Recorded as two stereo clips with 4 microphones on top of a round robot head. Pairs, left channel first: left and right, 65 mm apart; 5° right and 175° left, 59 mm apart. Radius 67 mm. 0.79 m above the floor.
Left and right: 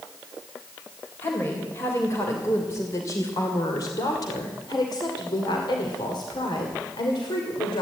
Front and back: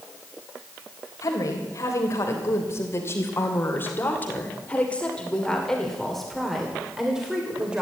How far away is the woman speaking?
About 3 m.